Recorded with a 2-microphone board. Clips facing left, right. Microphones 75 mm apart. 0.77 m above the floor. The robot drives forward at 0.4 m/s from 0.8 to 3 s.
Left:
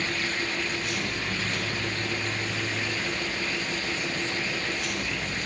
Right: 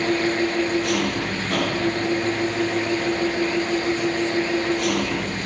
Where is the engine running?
90° right; by 5.5 s 85° right.